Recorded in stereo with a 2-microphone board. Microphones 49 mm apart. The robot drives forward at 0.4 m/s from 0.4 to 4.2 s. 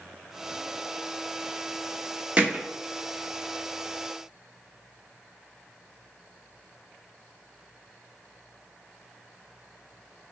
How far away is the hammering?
About 1.0 m.